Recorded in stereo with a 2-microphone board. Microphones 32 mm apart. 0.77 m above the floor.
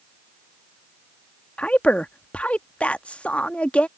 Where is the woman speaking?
45° left (ahead or behind).